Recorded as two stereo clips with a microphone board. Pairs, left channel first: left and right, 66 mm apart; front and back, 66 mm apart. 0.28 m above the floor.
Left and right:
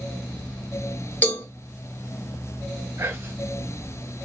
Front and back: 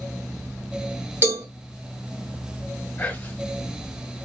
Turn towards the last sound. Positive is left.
turn(degrees=-55)